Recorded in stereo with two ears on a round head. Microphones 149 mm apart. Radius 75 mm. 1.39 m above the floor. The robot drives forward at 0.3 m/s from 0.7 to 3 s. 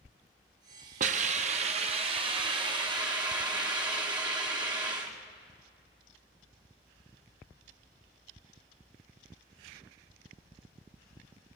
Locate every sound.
1.0 s a hiss: 50° right (ahead or behind), 0.6 m; by 5.2 s 30° right (ahead or behind), 1.0 m